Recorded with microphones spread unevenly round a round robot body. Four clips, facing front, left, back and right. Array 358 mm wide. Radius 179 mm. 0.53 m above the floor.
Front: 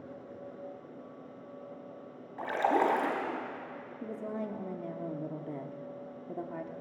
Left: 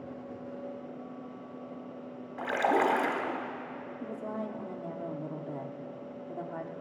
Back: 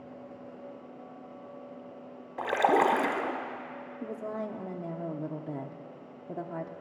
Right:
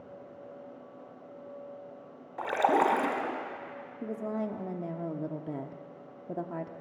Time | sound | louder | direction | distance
2.4 | a splash | right 2 dB, back 4 dB | 165° right | 1.5 m
4.0 | a woman speaking | right 4 dB, back 2 dB | 110° right | 0.8 m